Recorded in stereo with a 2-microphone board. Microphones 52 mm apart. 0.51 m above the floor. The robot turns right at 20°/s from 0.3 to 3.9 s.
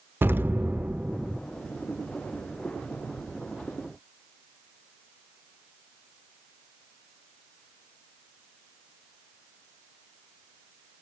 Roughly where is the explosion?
Right.